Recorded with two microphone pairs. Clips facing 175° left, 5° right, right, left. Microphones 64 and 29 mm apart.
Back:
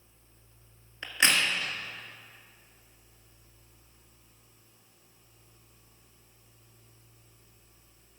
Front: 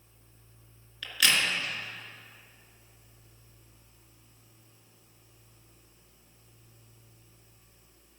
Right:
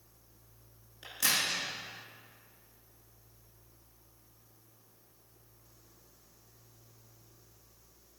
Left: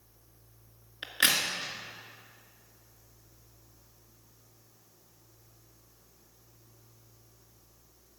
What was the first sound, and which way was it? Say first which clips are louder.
A crack: back 1 dB, left 4 dB; 120° left.